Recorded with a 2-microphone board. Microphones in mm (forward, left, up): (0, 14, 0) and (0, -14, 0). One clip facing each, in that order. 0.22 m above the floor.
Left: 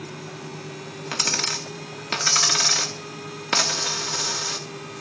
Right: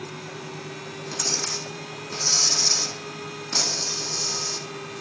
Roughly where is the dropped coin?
Left.